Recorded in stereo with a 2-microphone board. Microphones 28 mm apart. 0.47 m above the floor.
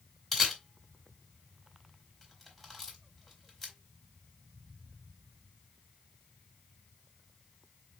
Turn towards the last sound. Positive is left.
turn(degrees=10)  # may be behind; listen again after turning